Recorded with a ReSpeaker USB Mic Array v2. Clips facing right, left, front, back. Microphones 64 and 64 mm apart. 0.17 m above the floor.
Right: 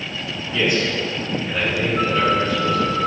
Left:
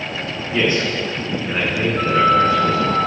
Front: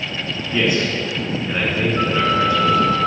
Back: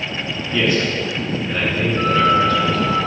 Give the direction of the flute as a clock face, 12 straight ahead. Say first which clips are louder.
Left 5 dB, back 4 dB; 1 o'clock.